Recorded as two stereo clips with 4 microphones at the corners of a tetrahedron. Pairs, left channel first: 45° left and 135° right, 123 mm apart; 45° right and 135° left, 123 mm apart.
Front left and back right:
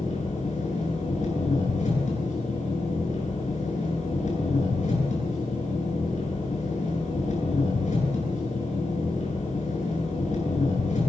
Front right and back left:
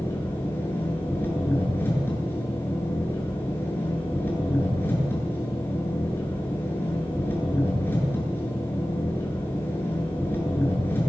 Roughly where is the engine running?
Ahead left.